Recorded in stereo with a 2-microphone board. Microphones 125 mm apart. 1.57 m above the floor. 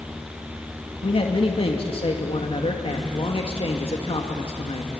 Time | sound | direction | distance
1.0 | a man speaking | 50° left (ahead or behind) | 2 m